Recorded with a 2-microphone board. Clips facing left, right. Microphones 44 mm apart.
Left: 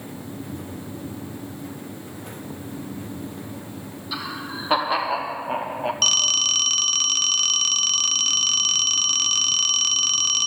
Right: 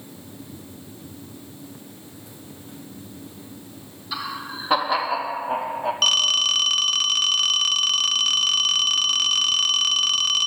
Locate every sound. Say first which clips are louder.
4.1 s laughter: right 1 dB; 5° left (ahead or behind), 4.5 m; by 5.9 s 30° left (ahead or behind), 4.5 m
6.0 s a phone ringing: right 3 dB; 10° right (ahead or behind), 0.7 m